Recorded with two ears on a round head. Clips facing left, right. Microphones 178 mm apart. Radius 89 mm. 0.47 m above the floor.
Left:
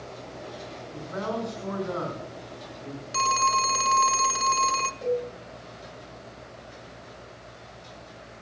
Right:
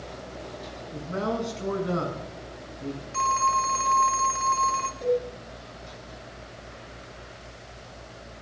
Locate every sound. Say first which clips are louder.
0.9 s a man speaking: right 3 dB; 40° right (ahead or behind), 7.5 m
3.1 s a phone ringing: left 1 dB; 45° left (ahead or behind), 0.6 m
5.0 s a cowbell: right 2 dB; centre (ahead or behind), 5.5 m